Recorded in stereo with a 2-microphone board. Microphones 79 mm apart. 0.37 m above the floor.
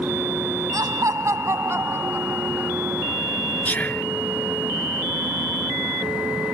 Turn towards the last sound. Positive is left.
turn(degrees=20)  # may be behind; listen again after turning